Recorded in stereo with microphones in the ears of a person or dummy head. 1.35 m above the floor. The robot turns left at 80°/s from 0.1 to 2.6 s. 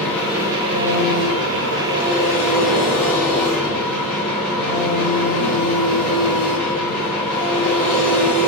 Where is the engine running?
15° left, 0.8 m; by 8.5 s 175° left, 0.8 m.